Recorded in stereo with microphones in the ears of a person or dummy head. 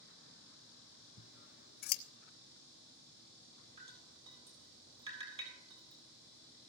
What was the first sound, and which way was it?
Scissors, 50° left (ahead or behind).